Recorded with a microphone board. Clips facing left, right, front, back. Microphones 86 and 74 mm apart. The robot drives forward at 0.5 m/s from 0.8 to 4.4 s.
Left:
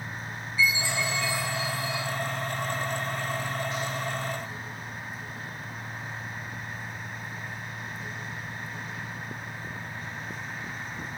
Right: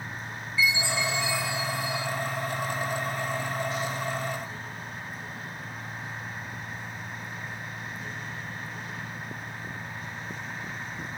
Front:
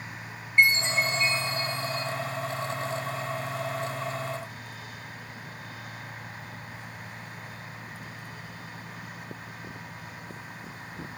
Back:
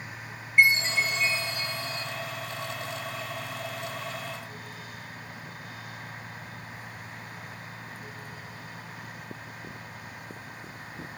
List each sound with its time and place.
0.6 s a chime: 95° right, 2.5 m; by 2.0 s 110° right, 3 m